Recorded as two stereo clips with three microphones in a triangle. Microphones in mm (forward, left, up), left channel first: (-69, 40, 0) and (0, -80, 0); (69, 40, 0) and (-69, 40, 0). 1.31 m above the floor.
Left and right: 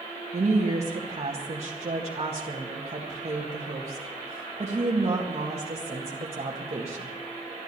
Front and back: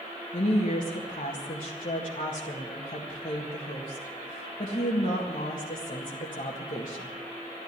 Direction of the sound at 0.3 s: 20° right.